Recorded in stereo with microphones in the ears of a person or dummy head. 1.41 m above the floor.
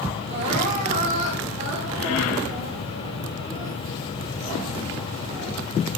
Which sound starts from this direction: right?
Crying, at 0.3 s.